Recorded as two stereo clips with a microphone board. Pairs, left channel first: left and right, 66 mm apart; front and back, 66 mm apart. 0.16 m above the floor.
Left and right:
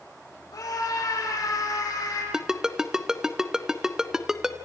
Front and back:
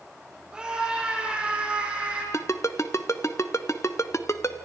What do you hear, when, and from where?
0.5 s a scream: 105° left, 7 m; by 2.2 s 110° left, 8 m
2.3 s a ringtone: 10° right, 1.2 m